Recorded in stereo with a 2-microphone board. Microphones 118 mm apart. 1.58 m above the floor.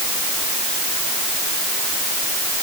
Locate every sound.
Only background noise.